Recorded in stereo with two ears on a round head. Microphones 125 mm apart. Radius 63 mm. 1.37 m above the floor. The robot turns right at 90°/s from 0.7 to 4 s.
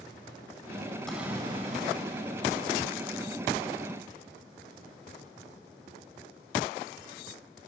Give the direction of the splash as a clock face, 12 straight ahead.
6 o'clock.